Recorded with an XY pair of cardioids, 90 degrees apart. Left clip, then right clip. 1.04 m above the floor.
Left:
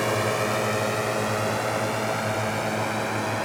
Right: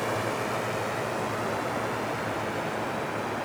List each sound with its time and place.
0.0 s a drone: 55° left; by 3.4 s 70° left